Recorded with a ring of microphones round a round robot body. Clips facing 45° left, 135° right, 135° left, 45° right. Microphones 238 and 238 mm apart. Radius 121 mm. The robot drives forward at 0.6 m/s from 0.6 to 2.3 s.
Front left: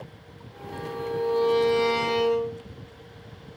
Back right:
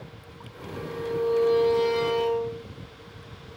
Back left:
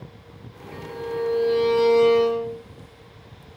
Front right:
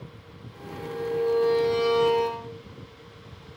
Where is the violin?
40° left, 3 m; by 2.6 s 55° left, 2.5 m.